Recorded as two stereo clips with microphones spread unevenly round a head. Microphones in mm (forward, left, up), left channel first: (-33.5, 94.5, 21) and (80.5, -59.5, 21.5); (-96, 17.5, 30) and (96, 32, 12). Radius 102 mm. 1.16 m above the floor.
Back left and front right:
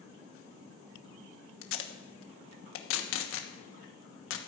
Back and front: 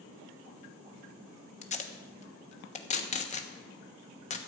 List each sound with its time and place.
1.6 s tape being pulled: 130° left, 1.2 m